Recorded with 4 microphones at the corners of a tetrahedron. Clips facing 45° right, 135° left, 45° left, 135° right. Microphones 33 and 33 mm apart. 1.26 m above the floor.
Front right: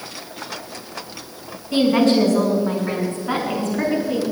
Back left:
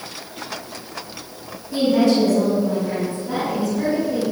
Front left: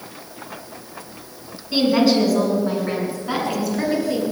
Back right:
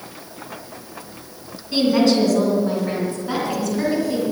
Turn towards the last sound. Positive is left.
turn(degrees=-30)